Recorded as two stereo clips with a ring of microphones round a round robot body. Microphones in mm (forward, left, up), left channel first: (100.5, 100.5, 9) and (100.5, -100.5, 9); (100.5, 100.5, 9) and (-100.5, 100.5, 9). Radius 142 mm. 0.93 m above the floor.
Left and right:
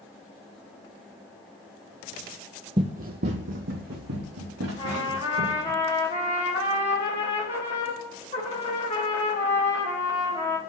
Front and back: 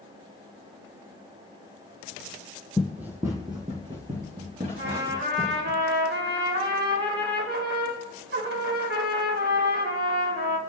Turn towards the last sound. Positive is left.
turn(degrees=155)